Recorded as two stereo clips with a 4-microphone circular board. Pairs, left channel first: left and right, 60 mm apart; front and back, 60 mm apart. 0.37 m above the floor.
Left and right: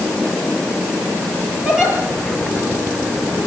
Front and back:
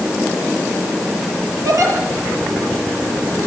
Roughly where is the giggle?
Behind.